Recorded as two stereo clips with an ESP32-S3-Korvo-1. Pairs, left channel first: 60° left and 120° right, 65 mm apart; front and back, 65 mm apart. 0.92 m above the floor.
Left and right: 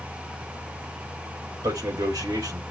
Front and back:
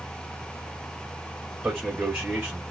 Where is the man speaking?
100° right, 4 m.